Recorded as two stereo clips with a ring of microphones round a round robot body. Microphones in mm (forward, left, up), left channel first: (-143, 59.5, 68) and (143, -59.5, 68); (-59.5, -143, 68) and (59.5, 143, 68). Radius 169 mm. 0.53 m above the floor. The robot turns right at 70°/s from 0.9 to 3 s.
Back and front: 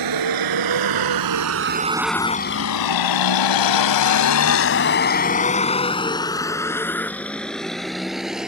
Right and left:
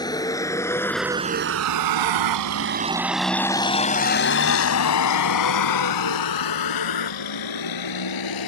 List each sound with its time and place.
0.0 s a vehicle: 35° right; by 8.5 s 110° right